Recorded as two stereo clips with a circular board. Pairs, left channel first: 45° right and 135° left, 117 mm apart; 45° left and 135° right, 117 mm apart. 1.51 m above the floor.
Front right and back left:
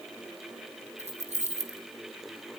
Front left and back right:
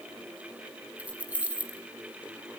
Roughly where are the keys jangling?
Behind left.